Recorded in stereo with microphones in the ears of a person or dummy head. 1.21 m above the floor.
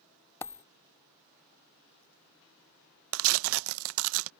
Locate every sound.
0.4 s a dropped coin: 10° left (ahead or behind)
3.1 s tearing paper: 75° right (ahead or behind)